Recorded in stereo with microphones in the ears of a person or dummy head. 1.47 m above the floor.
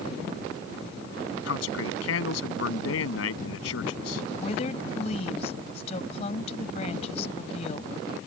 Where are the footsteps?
No footsteps in this recording.